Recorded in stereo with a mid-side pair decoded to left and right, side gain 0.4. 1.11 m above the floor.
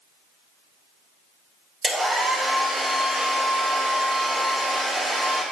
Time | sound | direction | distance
1.8 | a hair dryer | 50° right | 2.5 m